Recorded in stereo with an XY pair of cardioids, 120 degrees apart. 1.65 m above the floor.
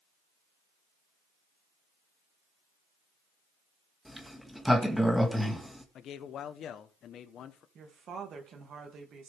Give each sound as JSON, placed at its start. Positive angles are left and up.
{"t": 4.0, "sound": "a sliding door", "azimuth_deg": 0, "distance_m": 1.8}
{"t": 6.0, "sound": "a man speaking", "azimuth_deg": 55, "distance_m": 1.1}
{"t": 7.8, "sound": "a woman speaking", "azimuth_deg": -50, "distance_m": 2.5}